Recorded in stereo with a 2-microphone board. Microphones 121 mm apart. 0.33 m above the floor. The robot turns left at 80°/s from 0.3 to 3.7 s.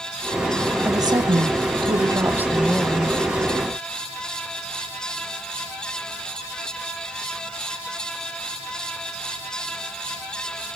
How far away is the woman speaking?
About 2 m.